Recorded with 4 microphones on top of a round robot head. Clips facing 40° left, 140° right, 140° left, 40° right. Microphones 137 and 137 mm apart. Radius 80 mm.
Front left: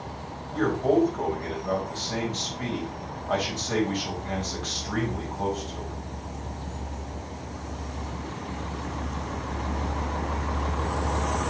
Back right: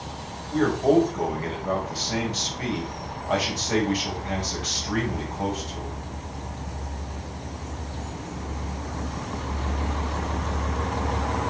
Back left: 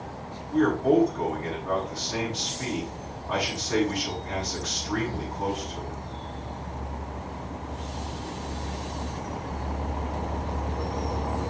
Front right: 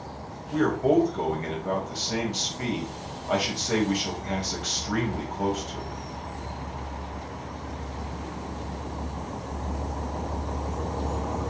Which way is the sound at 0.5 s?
60° right.